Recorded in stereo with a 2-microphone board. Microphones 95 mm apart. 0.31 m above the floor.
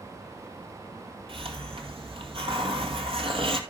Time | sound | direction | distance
1.3 | a hiss | 70° right (ahead or behind) | 2 m